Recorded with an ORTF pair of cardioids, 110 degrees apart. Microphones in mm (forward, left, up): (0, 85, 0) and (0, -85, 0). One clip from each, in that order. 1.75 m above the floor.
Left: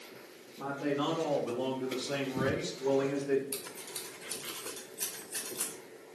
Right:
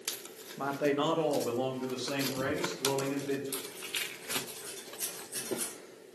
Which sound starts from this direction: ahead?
Scissors, at 3.5 s.